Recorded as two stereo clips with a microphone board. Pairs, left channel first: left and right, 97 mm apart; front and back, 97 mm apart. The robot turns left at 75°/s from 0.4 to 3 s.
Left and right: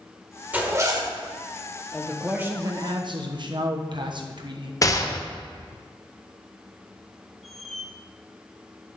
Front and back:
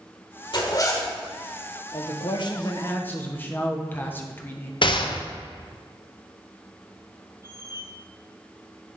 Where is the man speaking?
15° left, 1.0 m; by 4.7 s 65° right, 1.0 m.